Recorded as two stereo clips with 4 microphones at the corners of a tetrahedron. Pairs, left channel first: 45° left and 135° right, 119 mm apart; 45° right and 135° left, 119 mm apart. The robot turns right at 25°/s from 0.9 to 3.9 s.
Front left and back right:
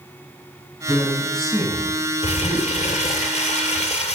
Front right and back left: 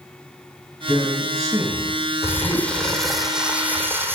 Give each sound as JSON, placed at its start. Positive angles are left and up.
{"t": 0.9, "sound": "a man speaking", "azimuth_deg": 120, "distance_m": 1.7}
{"t": 2.2, "sound": "crumpling", "azimuth_deg": 25, "distance_m": 0.6}